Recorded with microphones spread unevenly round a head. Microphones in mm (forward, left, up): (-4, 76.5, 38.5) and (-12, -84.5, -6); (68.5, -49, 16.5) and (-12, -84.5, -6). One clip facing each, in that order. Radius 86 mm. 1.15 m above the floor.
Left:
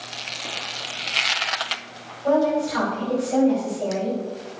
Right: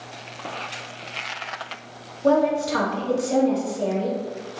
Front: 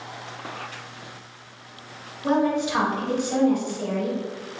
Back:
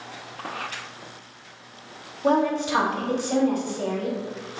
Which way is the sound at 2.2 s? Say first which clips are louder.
Right 1 dB, even; 110° right.